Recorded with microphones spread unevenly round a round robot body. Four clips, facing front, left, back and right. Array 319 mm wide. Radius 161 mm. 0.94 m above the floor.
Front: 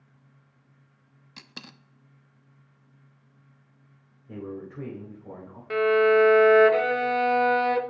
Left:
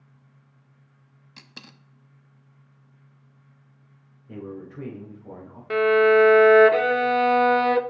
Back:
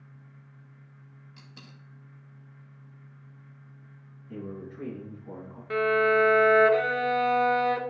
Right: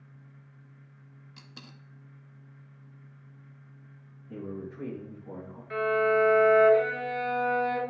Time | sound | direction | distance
1.4 | a dropped coin | 20° left | 0.5 m
4.3 | a man speaking | 40° left | 4 m
5.7 | a violin | 90° left | 0.6 m